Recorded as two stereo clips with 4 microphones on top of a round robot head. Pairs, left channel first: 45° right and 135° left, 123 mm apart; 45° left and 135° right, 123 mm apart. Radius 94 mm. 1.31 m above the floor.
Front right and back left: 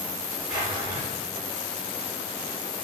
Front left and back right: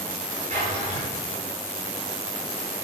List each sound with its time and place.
0.5 s a drawer: 170° right, 6 m